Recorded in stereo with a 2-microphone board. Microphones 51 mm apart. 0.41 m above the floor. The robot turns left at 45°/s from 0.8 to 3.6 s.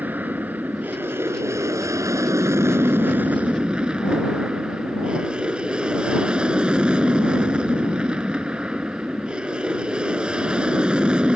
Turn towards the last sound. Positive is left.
turn(degrees=-160)